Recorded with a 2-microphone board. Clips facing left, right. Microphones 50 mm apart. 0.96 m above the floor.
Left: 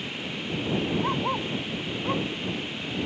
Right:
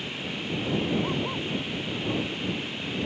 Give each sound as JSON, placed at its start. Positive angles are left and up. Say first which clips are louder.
{"t": 1.0, "sound": "a dog barking", "louder": "left 2 dB", "side_deg": 65}